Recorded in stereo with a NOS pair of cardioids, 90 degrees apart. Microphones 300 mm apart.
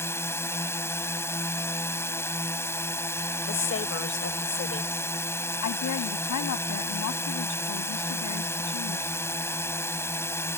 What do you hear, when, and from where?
0.0 s a drone: 10° left
3.5 s a woman speaking: 45° left
5.6 s a woman speaking: 70° left